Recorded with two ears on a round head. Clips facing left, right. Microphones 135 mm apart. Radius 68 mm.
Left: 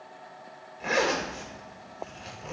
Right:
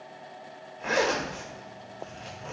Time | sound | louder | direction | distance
0.8 | a zipper | even | 5° left (ahead or behind) | 0.8 m